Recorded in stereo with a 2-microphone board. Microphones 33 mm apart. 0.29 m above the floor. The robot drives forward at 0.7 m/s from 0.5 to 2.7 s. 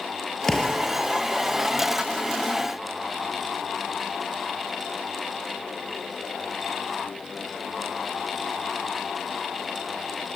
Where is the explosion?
20° left (ahead or behind), 4.5 m.